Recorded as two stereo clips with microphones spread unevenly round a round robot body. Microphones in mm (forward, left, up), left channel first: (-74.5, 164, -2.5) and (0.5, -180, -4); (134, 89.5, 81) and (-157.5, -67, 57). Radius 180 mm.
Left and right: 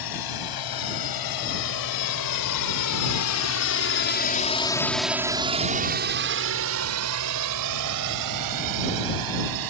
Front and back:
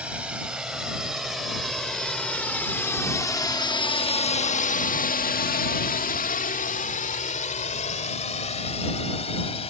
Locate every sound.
0.0 s a drone: 120° left; by 9.7 s 45° right